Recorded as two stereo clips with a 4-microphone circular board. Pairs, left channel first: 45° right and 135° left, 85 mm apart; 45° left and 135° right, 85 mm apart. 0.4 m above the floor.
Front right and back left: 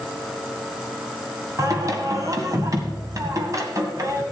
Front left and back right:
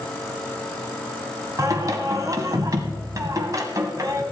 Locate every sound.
1.6 s singing: straight behind, 1.8 m